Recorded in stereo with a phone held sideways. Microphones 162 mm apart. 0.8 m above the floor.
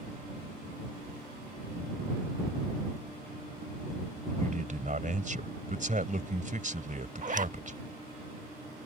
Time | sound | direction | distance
4.4 | a man speaking | 55° right (ahead or behind) | ?
7.2 | a zipper | 55° right (ahead or behind) | ?